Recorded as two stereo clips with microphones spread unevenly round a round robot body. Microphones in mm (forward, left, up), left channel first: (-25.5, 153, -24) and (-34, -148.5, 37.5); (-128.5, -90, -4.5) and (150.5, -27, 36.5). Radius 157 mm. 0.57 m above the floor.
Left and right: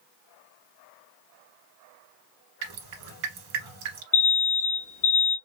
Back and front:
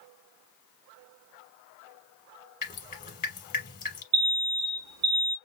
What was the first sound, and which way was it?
Dripping, 105° right.